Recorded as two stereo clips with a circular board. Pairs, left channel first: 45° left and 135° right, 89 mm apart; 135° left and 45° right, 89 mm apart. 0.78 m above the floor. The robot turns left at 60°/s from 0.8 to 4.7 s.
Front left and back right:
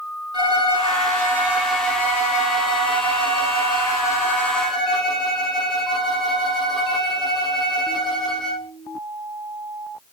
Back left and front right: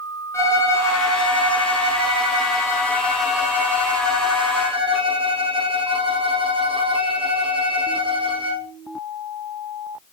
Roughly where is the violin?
Behind.